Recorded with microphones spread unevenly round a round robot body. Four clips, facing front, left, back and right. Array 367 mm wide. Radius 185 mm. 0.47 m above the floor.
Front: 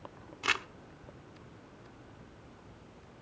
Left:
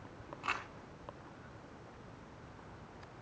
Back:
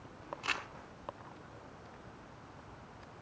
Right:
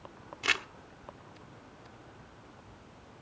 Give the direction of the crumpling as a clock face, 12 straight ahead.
1 o'clock.